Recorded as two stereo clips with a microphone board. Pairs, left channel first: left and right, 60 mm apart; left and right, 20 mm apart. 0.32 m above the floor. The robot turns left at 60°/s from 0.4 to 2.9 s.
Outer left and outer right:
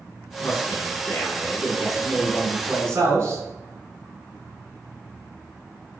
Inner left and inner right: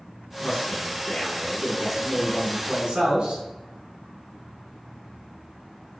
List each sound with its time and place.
0.4 s a man speaking: 100° left, 3.5 m; by 3.4 s 50° right, 3.5 m